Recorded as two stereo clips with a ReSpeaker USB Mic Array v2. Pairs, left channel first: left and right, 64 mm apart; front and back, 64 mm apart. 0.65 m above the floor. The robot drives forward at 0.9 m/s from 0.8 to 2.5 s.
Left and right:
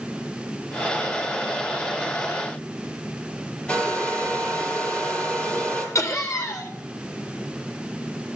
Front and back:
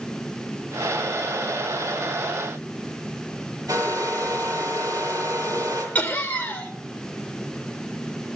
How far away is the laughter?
About 2.5 m.